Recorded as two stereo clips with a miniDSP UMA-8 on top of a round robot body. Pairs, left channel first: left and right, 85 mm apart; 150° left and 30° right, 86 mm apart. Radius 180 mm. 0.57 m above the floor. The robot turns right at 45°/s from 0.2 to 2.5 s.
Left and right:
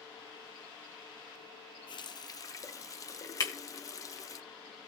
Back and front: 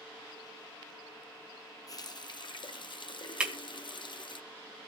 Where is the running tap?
110° left, 0.7 m; by 4.4 s 135° left, 0.7 m.